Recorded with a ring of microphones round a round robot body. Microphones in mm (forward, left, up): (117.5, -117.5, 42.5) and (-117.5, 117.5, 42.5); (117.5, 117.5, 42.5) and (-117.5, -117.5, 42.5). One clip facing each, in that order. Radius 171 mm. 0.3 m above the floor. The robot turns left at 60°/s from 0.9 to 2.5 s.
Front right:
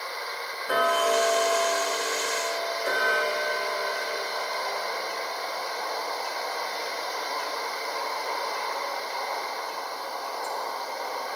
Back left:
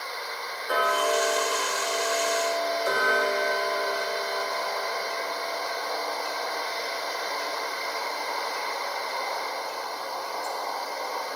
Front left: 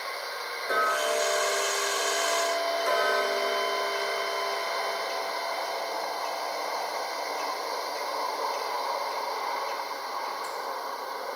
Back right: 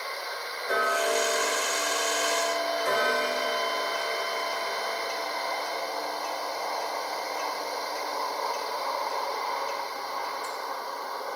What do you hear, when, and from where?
0.7 s ticking: 45° right, 2.5 m; by 10.5 s 140° right, 2.5 m